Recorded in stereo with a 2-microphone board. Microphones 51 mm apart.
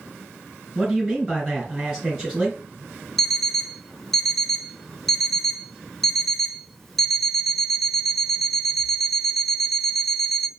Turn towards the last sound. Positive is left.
turn(degrees=5)  # may be behind; listen again after turning